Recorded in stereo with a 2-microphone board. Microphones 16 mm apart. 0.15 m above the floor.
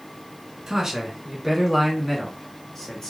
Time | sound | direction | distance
0.7 | a man speaking | 30° right (ahead or behind) | 1.1 m